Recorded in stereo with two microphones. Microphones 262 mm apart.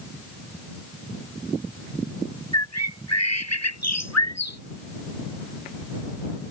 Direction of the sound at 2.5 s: 85° left.